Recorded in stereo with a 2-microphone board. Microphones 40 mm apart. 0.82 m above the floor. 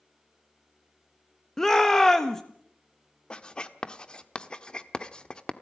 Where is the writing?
25° left (ahead or behind), 1.1 m.